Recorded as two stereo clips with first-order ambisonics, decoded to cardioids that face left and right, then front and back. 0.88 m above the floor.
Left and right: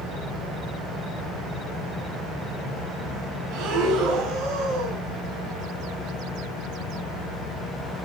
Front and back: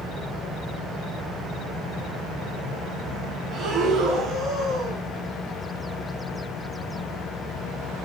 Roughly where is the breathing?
Behind right.